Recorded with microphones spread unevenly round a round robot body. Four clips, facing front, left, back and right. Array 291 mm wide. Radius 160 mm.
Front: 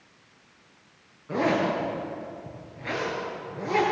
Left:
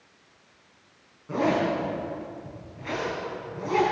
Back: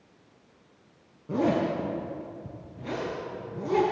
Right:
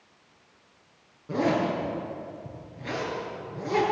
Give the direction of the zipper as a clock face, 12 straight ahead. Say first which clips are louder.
Left 1 dB, front 1 dB; 5 o'clock.